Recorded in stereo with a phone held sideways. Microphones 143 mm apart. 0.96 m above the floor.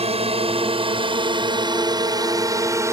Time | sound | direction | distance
0.0 | a drone | 45° right (ahead or behind) | ?